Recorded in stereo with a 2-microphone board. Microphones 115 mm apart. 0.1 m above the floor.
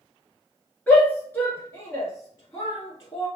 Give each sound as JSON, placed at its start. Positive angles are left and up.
{"t": 0.9, "sound": "a shout", "side_deg": 15, "distance_m": 1.2}